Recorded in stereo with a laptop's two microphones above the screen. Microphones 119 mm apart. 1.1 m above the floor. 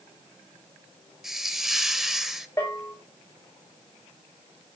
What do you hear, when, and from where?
1.2 s a hiss: centre (ahead or behind), 0.9 m
2.6 s a bell: 25° left (ahead or behind), 5.5 m